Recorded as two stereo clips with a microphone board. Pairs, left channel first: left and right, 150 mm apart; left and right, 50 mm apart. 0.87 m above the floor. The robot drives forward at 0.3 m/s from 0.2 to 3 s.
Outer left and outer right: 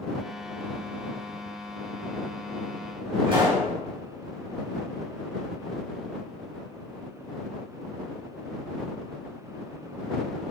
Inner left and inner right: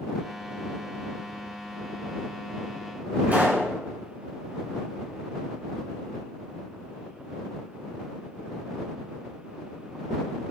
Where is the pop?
35° right (ahead or behind), 3.5 m.